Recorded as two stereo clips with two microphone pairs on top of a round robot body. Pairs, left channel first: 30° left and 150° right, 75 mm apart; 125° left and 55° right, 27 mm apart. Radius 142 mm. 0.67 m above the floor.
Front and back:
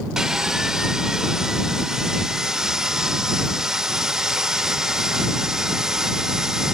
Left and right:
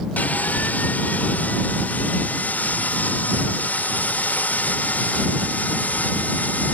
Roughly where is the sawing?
Behind left.